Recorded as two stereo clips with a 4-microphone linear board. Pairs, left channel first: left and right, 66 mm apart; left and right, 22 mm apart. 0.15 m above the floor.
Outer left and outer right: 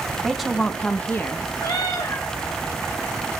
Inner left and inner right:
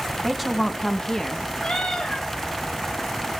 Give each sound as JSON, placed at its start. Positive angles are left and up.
{"t": 0.2, "sound": "a woman speaking", "side_deg": -5, "distance_m": 1.5}
{"t": 1.6, "sound": "a cat meowing", "side_deg": 80, "distance_m": 4.0}